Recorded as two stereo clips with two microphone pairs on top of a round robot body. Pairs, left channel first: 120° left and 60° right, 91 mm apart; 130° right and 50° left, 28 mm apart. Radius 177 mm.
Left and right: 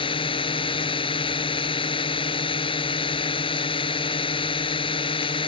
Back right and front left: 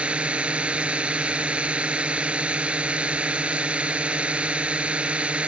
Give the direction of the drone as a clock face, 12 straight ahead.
9 o'clock.